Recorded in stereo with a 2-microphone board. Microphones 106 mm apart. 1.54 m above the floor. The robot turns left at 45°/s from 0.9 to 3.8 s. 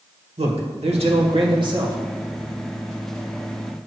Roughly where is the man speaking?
Right.